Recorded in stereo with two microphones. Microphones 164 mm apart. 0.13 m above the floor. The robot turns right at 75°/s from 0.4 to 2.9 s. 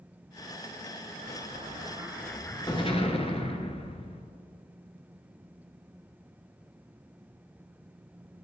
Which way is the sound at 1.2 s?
80° right.